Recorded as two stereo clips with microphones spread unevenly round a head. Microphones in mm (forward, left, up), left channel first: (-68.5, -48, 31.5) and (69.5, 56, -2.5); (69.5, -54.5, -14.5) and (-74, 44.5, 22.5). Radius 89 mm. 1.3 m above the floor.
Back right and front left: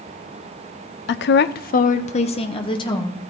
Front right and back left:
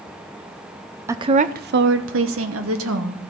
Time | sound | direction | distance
1.1 | a woman speaking | 130° right | 0.5 m